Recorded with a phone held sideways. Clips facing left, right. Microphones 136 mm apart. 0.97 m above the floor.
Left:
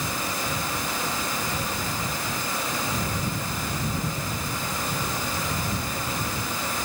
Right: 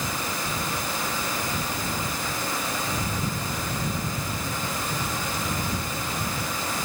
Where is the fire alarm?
No fire alarm in this recording.